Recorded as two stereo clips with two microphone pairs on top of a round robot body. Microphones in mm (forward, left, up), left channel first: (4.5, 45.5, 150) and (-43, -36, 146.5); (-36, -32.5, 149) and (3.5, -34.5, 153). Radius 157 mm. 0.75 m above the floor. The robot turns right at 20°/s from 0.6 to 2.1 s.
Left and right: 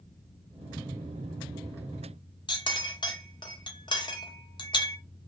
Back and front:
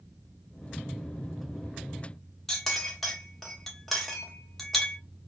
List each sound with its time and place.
2.5 s a clink: 95° left, 0.6 m